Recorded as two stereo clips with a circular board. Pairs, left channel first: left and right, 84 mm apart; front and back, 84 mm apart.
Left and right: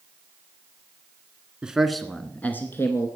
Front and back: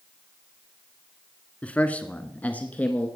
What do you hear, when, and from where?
1.6 s a man speaking: 35° right, 1.1 m; by 3.1 s 65° left, 1.4 m